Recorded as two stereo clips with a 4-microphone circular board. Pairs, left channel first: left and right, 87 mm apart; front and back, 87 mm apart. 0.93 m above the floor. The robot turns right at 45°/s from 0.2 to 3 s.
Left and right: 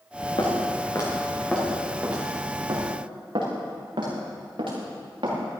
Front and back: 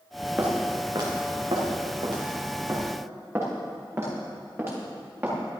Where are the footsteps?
110° left, 3.5 m; by 5.4 s 115° right, 6 m.